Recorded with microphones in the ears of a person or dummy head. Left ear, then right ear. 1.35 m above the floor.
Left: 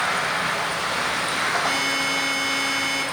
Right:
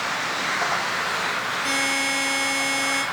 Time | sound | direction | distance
1.6 | a buzzer | 35° right (ahead or behind) | 2.5 m